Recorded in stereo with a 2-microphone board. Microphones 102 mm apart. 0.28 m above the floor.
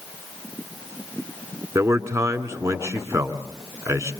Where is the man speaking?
30° right (ahead or behind), 2.5 m.